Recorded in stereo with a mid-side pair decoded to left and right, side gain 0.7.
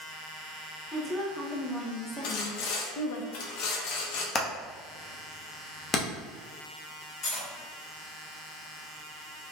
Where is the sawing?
65° left, 0.7 m.